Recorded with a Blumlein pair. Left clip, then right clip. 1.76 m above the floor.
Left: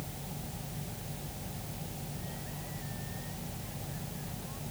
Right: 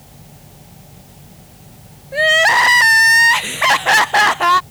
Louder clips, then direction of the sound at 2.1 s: Right 34 dB; 45° right.